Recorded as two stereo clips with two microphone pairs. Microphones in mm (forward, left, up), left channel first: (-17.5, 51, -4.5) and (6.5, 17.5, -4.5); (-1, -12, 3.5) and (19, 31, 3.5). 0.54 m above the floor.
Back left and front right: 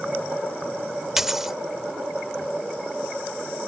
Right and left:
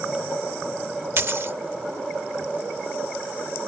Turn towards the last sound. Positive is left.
turn(degrees=30)